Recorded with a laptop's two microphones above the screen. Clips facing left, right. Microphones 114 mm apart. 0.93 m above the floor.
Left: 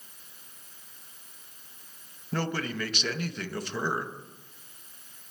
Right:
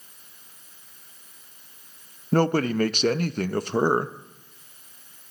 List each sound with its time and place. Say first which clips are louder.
2.3 s a man speaking: right 10 dB; 45° right (ahead or behind), 0.6 m